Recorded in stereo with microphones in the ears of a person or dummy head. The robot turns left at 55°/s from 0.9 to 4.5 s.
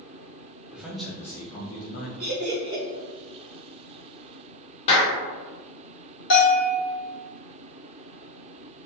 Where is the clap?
40° left (ahead or behind), 0.8 m.